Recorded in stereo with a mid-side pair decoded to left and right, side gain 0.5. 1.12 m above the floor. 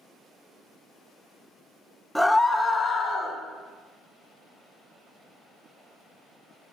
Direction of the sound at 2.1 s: Straight ahead.